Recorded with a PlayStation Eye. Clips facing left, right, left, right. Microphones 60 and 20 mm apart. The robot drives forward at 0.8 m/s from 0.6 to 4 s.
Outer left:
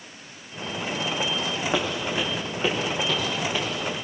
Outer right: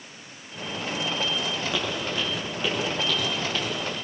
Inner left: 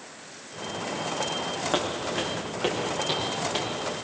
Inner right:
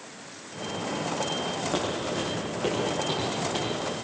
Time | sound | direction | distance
1.7 | footsteps | 35° left (ahead or behind) | 6 m